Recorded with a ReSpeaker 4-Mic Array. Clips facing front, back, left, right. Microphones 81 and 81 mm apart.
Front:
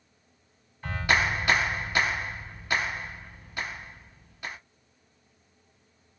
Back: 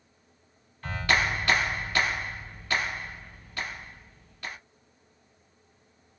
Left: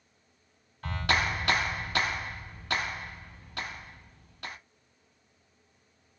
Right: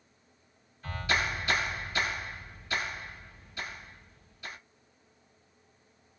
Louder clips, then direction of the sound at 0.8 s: Front 1 dB, left 2 dB; 75° left.